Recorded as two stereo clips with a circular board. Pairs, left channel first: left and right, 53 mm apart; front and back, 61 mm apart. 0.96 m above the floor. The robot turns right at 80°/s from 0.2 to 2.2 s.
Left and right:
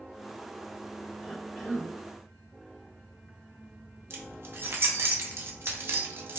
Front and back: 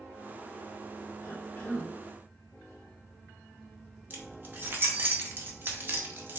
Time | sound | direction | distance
1.2 | a cough | 20° right | 1.9 m
4.1 | keys jangling | 125° right | 0.7 m